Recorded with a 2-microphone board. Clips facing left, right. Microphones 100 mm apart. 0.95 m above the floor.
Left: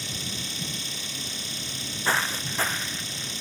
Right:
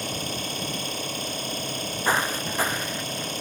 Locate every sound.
0.0 s an engine running: 50° right (ahead or behind)
1.6 s footsteps: 20° right (ahead or behind); by 3.3 s 10° right (ahead or behind)